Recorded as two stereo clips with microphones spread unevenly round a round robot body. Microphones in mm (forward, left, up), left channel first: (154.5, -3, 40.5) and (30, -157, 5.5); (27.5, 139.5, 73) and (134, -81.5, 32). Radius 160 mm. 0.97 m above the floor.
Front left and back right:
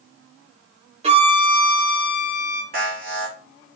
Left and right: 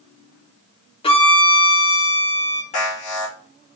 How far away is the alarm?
About 3.5 m.